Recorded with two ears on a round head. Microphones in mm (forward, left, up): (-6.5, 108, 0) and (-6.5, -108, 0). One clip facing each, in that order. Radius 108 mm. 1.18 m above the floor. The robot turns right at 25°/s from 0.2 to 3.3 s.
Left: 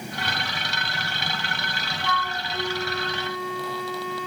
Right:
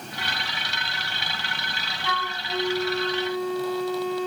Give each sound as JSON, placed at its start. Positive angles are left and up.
{"t": 2.0, "sound": "a flute", "azimuth_deg": -60, "distance_m": 2.5}